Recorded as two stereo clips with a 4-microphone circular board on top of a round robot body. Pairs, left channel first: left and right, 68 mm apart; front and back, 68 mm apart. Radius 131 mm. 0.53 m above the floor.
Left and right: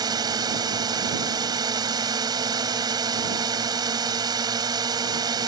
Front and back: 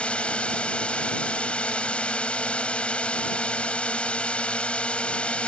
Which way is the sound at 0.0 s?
75° right.